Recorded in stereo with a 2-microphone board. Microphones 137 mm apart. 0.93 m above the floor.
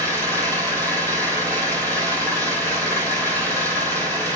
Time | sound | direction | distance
0.0 | an engine running | 15° left (ahead or behind) | 5.5 m